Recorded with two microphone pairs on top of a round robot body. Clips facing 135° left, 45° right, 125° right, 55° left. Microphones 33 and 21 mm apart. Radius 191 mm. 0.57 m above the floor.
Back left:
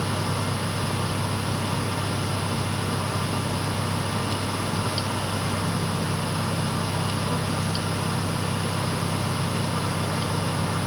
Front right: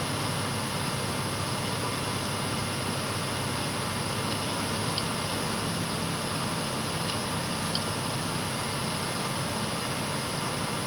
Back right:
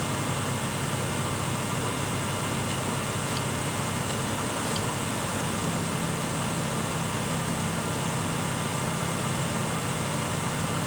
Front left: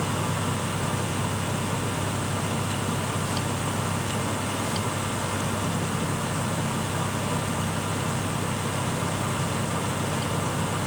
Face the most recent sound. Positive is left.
No sound to turn to.